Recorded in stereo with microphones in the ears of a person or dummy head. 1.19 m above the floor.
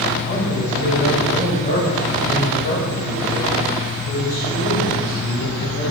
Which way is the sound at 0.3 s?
40° left (ahead or behind).